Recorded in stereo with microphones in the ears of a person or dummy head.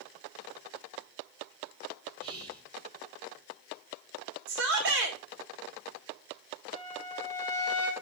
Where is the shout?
65° right (ahead or behind), 1.7 m.